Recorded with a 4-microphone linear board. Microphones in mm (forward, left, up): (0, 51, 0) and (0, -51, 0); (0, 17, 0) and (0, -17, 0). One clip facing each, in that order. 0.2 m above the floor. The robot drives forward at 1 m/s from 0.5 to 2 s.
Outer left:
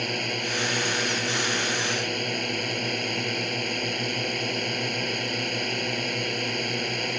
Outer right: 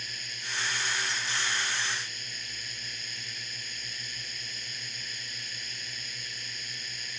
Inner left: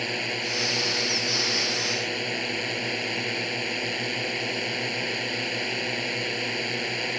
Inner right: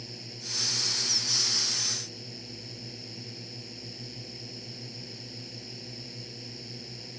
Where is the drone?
70° left (ahead or behind).